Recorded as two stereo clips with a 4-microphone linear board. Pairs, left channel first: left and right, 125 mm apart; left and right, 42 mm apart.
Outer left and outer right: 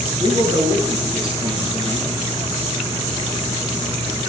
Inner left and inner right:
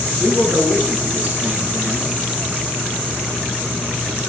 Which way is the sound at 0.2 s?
45° right (ahead or behind).